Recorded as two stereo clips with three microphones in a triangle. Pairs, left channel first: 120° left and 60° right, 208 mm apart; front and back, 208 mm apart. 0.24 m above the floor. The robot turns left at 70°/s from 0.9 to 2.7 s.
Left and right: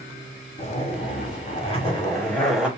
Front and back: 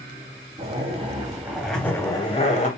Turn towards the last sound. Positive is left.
turn(degrees=20)